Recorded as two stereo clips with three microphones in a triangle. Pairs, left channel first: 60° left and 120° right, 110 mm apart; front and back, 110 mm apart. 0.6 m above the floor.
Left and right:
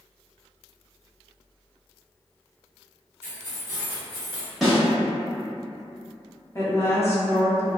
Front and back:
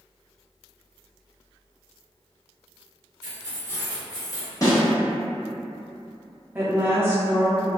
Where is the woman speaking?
115° left, 0.8 m.